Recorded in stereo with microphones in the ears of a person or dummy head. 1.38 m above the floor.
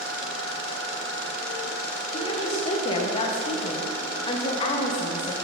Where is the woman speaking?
25° left (ahead or behind), 0.7 m.